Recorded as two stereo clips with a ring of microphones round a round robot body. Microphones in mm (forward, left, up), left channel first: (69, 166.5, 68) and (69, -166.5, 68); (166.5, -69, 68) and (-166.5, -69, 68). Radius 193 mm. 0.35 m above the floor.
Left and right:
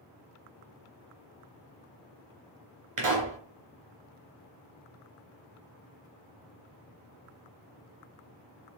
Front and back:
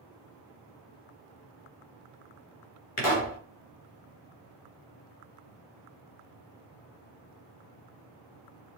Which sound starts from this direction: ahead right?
A pop, at 3.0 s.